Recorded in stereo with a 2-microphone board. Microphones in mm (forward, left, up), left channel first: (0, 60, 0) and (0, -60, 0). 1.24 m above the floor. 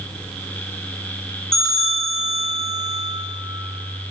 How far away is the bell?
About 1.5 m.